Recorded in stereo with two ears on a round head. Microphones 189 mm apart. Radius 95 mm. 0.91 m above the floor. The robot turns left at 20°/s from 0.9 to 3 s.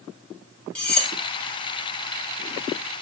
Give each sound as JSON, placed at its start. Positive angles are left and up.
{"t": 0.8, "sound": "cutlery clinking", "side_deg": 5, "distance_m": 0.7}